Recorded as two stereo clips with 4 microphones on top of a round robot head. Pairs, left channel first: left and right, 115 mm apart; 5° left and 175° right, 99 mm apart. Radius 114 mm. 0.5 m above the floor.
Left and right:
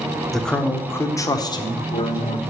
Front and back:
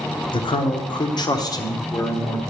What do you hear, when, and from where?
0.3 s a man speaking: straight ahead, 1.2 m; by 2.4 s 65° left, 1.5 m